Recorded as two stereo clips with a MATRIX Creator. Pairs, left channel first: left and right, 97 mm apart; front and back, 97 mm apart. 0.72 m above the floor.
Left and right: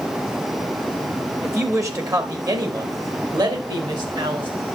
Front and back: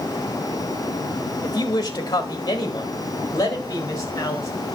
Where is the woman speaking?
30° right, 1.5 m; by 4.5 s 55° right, 3 m.